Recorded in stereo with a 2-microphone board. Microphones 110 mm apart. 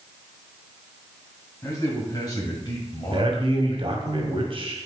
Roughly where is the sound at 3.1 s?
Right.